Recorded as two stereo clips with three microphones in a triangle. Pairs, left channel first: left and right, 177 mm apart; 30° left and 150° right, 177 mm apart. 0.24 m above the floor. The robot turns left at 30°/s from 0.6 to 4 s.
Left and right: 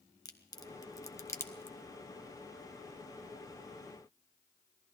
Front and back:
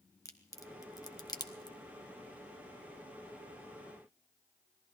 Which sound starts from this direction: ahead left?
A crack, at 0.2 s.